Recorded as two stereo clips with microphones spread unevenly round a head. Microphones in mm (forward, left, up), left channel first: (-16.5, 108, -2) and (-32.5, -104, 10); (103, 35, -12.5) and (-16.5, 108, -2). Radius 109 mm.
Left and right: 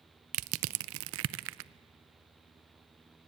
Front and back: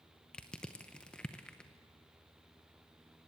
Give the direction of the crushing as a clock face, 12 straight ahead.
4 o'clock.